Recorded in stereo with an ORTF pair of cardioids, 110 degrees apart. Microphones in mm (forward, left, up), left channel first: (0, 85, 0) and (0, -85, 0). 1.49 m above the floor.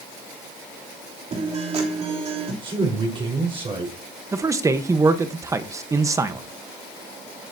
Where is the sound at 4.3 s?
20° right, 1.2 m.